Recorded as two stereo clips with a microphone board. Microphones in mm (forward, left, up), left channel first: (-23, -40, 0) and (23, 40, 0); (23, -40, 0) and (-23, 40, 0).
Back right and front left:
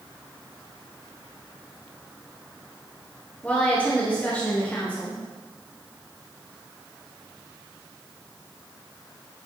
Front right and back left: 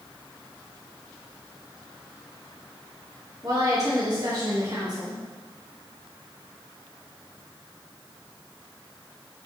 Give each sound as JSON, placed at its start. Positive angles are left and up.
{"t": 3.4, "sound": "a woman speaking", "azimuth_deg": 165, "distance_m": 2.0}